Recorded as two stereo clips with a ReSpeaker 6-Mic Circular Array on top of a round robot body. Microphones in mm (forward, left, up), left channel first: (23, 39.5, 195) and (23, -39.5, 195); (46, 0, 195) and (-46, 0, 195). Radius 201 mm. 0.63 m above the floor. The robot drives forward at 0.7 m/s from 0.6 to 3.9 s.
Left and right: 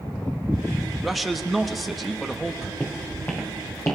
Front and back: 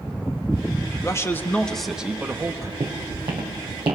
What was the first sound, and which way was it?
A man speaking, straight ahead.